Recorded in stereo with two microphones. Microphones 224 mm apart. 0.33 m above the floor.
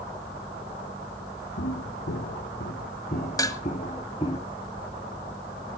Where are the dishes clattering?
15° left (ahead or behind), 1.2 m.